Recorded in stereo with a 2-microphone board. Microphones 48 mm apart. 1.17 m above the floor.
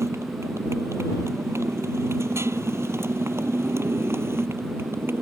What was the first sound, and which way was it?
A motorcycle, 70° right (ahead or behind).